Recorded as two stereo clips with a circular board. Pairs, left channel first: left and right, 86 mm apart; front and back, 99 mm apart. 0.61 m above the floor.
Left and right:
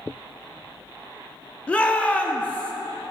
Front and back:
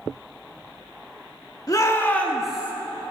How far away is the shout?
About 1.4 m.